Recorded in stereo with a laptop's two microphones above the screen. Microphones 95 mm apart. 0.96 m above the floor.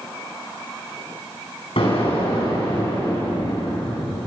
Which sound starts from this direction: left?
An explosion, at 1.8 s.